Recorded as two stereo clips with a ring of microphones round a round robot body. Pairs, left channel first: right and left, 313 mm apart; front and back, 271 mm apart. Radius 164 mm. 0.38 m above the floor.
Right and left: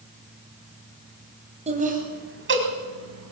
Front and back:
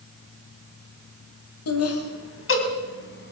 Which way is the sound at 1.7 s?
20° left.